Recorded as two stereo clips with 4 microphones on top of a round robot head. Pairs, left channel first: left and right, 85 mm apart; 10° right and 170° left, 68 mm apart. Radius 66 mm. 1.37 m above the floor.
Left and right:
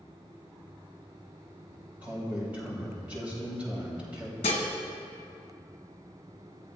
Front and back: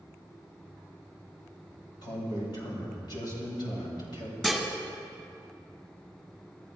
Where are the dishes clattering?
75° left, 1.6 m.